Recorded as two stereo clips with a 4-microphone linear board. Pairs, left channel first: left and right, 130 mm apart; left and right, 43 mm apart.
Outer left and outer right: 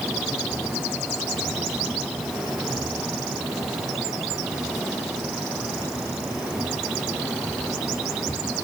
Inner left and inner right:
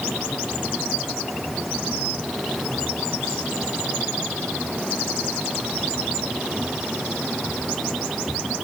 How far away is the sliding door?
No sliding door in this recording.